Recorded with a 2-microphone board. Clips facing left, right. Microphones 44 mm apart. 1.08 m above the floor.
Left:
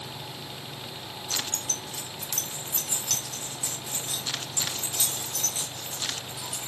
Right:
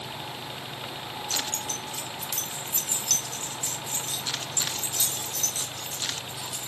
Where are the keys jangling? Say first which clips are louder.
Even; 45° right (ahead or behind), 1.0 m; by 6.7 s 20° left (ahead or behind), 5 m.